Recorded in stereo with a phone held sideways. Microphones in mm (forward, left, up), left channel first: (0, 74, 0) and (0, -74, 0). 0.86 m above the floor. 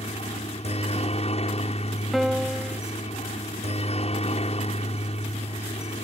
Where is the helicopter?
45° left (ahead or behind).